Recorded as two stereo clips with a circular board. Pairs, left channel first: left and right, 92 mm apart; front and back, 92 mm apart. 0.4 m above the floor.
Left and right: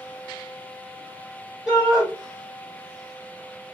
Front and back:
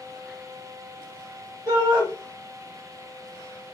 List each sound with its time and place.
1.7 s a shout: 170° left, 1.6 m